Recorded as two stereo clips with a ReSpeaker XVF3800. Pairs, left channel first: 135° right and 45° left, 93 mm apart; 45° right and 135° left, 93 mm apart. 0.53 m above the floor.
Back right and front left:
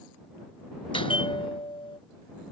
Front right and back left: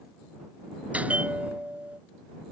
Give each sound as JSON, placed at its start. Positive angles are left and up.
{"t": 0.9, "sound": "a bell", "azimuth_deg": -150}